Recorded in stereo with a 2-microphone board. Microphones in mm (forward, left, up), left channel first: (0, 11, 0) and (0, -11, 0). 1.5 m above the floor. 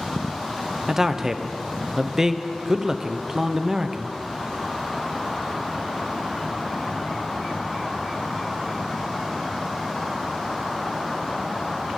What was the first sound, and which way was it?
A man speaking, 20° right (ahead or behind).